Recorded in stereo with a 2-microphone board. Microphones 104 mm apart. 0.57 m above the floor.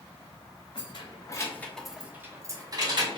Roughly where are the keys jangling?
Left.